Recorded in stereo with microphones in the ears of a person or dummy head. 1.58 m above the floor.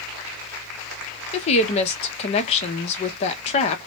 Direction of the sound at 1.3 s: 35° left (ahead or behind).